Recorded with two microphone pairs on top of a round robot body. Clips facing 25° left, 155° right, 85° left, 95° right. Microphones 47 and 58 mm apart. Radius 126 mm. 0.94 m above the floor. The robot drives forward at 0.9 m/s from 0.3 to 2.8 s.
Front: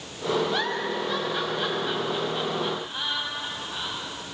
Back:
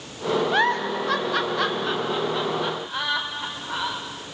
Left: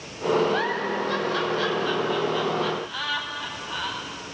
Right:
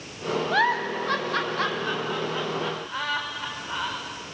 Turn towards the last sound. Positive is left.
turn(degrees=-155)